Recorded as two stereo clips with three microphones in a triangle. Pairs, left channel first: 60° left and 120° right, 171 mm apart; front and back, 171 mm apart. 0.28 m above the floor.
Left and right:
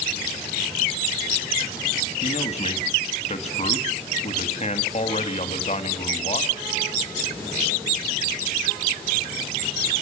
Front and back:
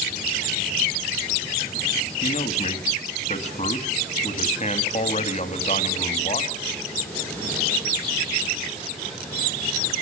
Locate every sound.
2.2 s a man speaking: 25° left, 2.5 m